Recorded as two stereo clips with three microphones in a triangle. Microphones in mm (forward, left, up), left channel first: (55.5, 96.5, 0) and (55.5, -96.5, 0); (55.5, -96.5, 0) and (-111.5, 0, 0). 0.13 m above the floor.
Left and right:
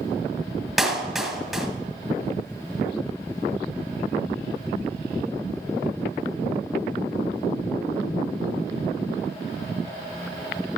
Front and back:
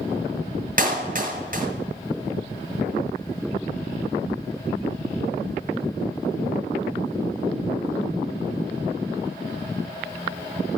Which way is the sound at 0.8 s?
175° right.